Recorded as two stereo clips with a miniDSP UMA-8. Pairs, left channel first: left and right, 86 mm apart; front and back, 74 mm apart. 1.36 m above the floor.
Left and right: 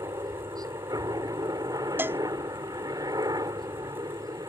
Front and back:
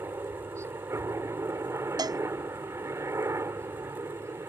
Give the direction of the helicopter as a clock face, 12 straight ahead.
4 o'clock.